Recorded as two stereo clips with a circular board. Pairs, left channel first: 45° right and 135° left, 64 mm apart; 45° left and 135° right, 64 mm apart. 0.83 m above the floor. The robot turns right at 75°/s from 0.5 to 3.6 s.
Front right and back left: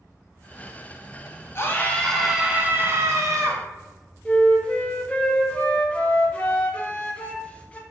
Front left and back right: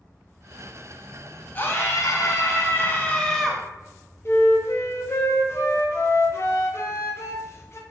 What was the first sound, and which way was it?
A scream, 10° right.